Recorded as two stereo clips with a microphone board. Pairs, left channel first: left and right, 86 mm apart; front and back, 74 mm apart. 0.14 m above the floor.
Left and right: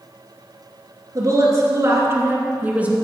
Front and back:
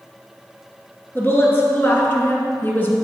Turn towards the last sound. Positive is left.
turn(degrees=-30)